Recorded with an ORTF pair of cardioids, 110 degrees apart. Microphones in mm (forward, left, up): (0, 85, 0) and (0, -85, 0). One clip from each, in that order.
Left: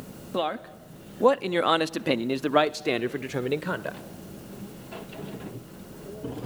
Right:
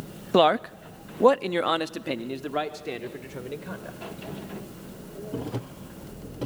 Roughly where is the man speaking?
Ahead right.